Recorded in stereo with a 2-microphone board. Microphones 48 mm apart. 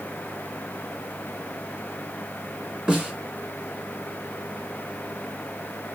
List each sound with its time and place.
2.9 s a snare drum: 15° right (ahead or behind), 1.6 m